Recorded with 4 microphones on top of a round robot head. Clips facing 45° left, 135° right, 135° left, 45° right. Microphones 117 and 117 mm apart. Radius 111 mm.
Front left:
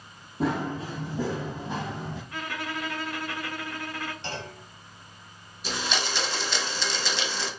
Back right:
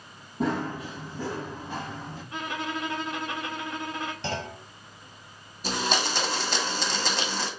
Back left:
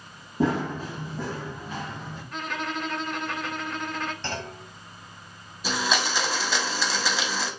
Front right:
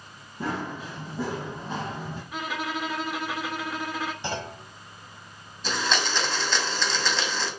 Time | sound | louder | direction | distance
0.4 | running footsteps | front left 1 dB, back left 6 dB | 135° left | 0.6 m
2.3 | a violin | back right 4 dB, even | 120° right | 0.8 m
4.2 | a clunk | back right 4 dB, front right 1 dB | 125° right | 0.8 m
5.6 | a blender | back right 3 dB, back left 1 dB | 150° right | 1.3 m